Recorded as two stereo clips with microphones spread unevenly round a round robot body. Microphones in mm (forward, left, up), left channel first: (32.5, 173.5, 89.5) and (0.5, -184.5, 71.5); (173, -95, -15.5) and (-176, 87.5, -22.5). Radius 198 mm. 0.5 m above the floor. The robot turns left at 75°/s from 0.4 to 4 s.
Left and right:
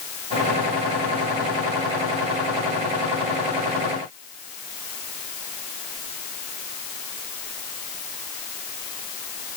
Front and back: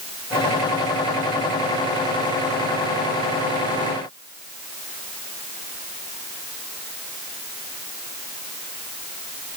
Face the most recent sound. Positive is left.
No sound to turn to.